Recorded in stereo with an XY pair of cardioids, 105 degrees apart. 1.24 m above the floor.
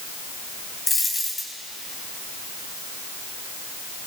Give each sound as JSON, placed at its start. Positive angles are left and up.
{"t": 0.9, "sound": "a dropped coin", "azimuth_deg": 25, "distance_m": 3.0}